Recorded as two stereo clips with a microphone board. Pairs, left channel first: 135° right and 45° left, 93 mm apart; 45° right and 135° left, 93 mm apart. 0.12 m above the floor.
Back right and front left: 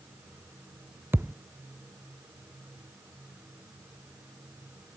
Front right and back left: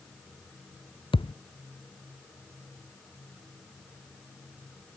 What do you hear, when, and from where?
1.1 s a thud: 20° right